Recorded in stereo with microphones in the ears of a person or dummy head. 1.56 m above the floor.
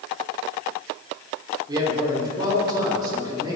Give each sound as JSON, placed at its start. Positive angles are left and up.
{"t": 1.7, "sound": "a man speaking", "side_deg": -25, "distance_m": 5.5}